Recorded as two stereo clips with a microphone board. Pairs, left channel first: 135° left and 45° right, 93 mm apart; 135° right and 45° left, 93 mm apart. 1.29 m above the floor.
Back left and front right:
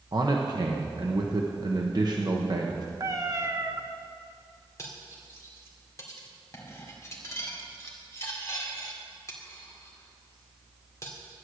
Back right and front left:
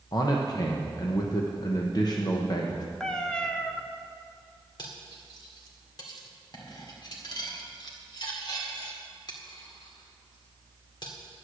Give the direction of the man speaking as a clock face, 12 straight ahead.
3 o'clock.